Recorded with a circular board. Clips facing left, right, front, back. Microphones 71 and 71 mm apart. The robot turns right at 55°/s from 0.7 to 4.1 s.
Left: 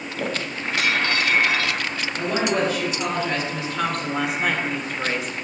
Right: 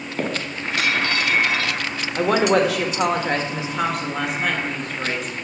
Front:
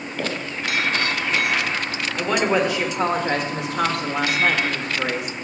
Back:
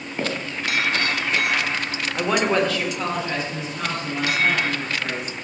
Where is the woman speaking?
105° right, 1.5 m; by 5.3 s 5° left, 1.5 m.